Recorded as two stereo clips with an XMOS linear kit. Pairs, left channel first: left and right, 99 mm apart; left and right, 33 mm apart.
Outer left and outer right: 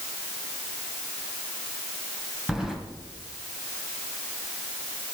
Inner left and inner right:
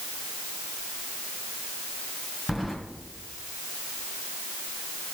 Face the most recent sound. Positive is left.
turn(degrees=-5)  # may be behind; listen again after turning